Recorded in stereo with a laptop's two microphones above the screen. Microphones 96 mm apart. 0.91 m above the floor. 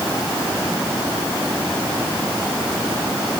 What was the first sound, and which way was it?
Only background noise.